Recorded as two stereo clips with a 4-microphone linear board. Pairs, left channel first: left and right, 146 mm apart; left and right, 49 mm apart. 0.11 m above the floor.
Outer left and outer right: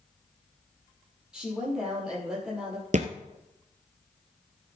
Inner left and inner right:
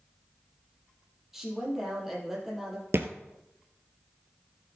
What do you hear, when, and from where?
1.3 s a woman speaking: 5° right (ahead or behind), 4 m
2.9 s a thud: 60° right (ahead or behind), 1.2 m